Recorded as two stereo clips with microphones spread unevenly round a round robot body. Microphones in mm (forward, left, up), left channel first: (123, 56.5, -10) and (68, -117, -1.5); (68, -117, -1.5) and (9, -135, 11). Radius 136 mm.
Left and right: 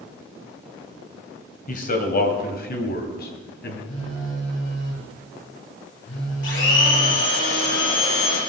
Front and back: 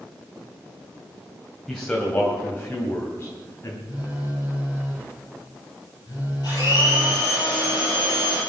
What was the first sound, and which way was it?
A man speaking, 95° left.